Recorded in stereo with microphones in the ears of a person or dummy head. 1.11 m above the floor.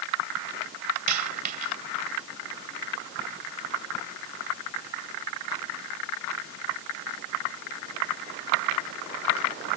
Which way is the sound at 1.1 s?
45° right (ahead or behind).